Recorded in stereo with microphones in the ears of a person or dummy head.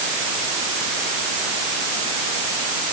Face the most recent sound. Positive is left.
No sound to turn to.